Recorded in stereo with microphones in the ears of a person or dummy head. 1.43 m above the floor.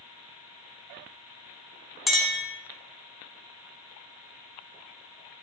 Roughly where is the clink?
Centre.